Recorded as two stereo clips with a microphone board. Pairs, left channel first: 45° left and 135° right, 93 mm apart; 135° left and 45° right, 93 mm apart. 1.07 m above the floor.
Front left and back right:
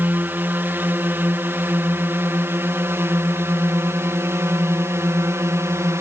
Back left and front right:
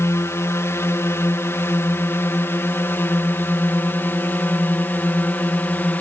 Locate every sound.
0.0 s a drone: 170° left; by 6.0 s 170° right